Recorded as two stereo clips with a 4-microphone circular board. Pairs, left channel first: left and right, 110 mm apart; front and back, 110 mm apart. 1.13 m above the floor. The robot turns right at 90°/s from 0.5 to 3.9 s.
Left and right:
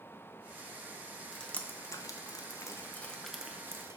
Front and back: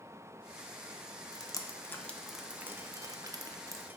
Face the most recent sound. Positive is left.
turn(degrees=-125)